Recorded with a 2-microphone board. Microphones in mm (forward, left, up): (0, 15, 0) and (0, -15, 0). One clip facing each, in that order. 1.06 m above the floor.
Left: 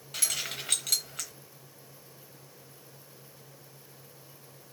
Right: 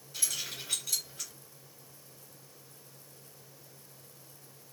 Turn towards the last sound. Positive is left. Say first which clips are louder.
# left 4 dB
turn(degrees=80)